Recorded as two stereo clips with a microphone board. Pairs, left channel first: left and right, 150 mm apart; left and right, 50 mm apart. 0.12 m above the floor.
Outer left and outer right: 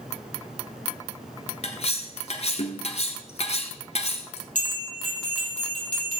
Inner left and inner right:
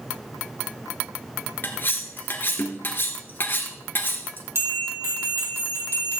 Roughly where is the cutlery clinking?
Left.